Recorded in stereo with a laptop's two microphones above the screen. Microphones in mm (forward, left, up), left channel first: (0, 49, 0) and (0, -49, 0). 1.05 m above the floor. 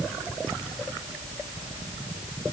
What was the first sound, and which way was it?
Only background noise.